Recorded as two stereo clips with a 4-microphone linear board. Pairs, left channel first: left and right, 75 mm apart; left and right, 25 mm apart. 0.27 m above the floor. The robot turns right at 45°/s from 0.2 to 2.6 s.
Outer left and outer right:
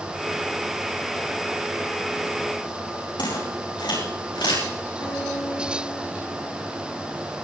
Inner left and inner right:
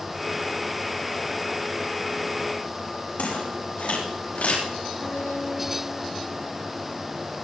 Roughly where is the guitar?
Left.